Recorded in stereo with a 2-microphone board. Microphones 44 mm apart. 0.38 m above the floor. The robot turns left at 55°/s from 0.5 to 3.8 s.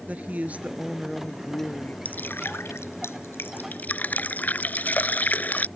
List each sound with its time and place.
0.1 s a woman speaking: 140° right; by 1.9 s 140° left
2.0 s dripping: 40° left (ahead or behind); by 5.7 s 45° left (ahead or behind)